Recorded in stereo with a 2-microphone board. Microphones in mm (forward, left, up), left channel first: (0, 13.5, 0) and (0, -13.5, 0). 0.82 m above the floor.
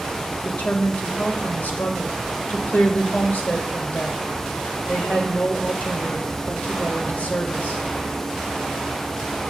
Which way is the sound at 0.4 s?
75° left (ahead or behind).